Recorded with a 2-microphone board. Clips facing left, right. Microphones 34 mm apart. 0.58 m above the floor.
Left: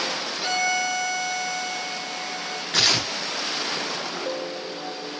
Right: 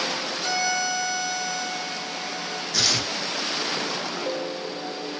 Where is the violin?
20° left (ahead or behind), 0.9 m.